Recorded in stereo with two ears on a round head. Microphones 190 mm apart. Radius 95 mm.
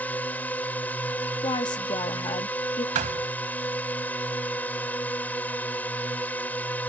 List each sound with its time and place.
0.0 s a drone: 10° left (ahead or behind)
1.4 s a woman speaking: 20° left (ahead or behind)
3.0 s a thud: 35° right (ahead or behind)